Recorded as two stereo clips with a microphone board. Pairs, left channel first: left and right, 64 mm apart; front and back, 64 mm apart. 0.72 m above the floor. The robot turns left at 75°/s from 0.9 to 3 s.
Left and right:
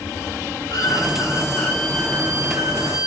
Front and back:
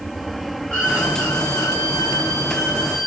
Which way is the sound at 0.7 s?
75° left.